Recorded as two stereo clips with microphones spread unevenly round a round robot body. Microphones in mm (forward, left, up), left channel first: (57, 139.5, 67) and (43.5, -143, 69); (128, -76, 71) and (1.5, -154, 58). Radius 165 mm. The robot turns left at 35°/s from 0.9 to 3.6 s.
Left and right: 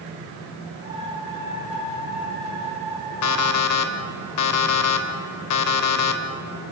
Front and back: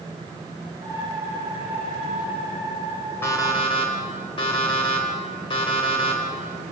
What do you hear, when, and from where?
3.2 s an alarm clock: 110° left, 1.5 m; by 6.2 s 100° left, 1.5 m